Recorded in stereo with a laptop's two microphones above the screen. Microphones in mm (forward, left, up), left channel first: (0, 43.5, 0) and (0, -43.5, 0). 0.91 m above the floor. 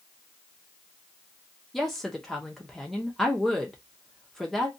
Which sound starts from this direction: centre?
A woman speaking, at 1.7 s.